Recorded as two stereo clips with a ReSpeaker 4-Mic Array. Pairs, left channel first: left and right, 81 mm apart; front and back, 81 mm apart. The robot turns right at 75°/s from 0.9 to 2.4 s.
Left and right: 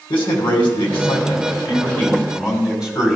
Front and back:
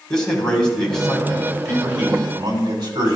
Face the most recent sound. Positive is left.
turn(degrees=-170)